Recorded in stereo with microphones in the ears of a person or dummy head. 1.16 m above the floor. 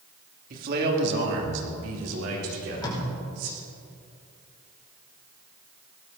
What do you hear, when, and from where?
0.5 s a man speaking: 50° right (ahead or behind), 2.5 m; by 3.5 s 75° right (ahead or behind), 5 m
2.5 s tape being pulled: 25° left (ahead or behind), 5 m